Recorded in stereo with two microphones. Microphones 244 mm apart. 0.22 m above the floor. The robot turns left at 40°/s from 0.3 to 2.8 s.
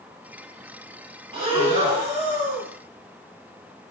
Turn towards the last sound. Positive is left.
turn(degrees=-105)